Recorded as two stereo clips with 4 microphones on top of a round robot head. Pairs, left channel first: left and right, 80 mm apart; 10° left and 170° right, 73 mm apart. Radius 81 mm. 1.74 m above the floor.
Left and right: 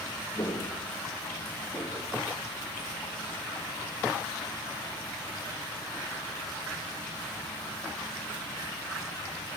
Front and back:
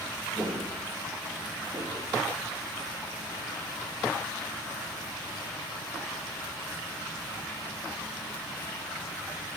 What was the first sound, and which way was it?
Footsteps, 140° left.